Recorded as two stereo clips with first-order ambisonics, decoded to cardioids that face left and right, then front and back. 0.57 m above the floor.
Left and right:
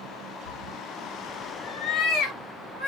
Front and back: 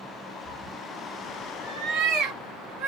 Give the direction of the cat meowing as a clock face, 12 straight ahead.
9 o'clock.